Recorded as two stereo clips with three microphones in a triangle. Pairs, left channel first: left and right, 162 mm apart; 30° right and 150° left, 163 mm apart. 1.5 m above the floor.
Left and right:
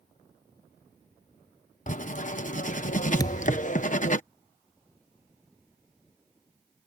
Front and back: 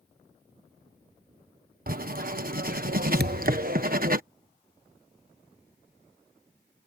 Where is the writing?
125° left.